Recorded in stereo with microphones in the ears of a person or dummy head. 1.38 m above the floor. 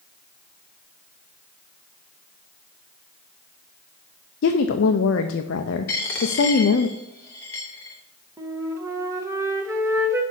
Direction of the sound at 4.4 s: 60° left (ahead or behind).